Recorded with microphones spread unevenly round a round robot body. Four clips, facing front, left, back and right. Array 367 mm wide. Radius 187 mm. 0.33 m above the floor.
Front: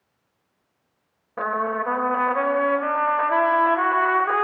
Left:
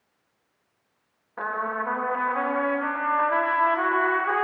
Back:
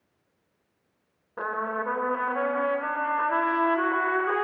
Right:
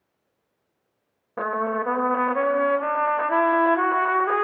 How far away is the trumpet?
About 1.7 m.